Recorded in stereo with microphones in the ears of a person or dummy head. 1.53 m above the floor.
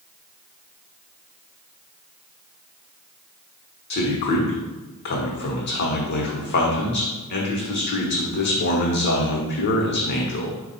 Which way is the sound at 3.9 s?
60° left (ahead or behind).